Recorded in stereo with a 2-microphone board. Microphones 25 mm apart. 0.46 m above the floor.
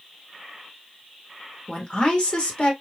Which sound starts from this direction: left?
A woman speaking, at 1.7 s.